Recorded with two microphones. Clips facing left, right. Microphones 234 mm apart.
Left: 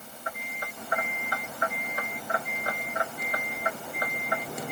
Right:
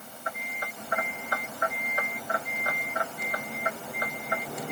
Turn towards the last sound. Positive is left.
No sound to turn to.